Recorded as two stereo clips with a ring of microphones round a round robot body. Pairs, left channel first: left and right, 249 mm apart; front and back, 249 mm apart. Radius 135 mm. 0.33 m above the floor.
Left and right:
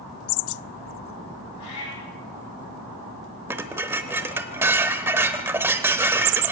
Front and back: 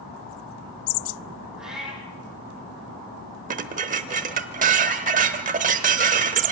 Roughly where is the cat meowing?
Left.